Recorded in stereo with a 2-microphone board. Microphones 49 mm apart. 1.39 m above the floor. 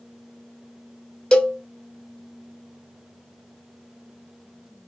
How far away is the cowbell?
About 0.5 m.